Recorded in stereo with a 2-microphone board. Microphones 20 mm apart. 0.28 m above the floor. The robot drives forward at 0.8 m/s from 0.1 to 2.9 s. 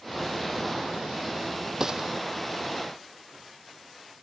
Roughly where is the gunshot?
Right.